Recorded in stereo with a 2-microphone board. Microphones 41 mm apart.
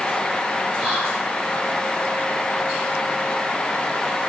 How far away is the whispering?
About 1.8 m.